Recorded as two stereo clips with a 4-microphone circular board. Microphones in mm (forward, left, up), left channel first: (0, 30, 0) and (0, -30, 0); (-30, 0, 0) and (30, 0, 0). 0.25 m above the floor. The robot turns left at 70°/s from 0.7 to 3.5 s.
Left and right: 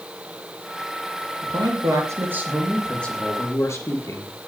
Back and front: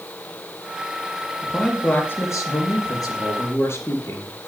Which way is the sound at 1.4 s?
80° right.